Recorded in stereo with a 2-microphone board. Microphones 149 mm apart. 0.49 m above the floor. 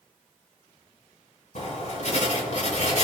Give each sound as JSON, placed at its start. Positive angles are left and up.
{"t": 1.6, "sound": "writing", "side_deg": 55, "distance_m": 3.0}